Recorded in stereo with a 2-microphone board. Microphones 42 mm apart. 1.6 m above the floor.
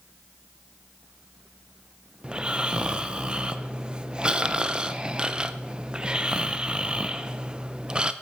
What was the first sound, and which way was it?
Snoring, 20° right (ahead or behind).